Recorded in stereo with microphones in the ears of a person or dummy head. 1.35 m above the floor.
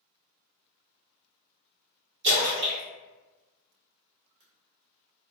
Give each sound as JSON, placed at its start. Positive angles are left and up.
{"t": 2.2, "sound": "a splash", "side_deg": -60, "distance_m": 1.6}